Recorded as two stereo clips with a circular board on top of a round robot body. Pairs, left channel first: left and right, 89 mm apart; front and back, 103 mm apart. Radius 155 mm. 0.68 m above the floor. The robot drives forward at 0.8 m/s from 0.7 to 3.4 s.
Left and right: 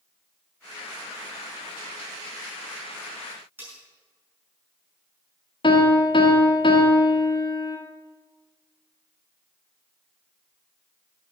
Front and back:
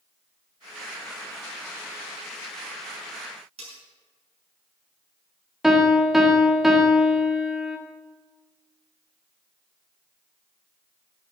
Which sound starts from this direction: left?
A piano, at 5.6 s.